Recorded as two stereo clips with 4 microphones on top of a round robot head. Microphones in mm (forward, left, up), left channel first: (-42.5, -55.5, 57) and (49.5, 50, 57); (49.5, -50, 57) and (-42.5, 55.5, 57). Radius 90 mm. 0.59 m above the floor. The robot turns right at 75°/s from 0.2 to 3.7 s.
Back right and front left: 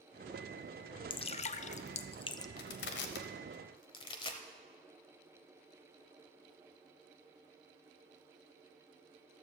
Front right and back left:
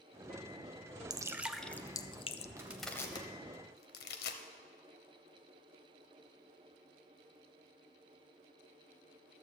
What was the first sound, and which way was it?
Dripping, 175° right.